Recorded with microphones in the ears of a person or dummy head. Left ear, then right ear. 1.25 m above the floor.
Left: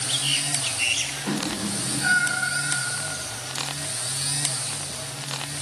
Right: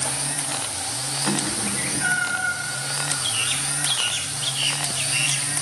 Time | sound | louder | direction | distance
1.3 | a cat meowing | right 3 dB | 55° right (ahead or behind) | 2 m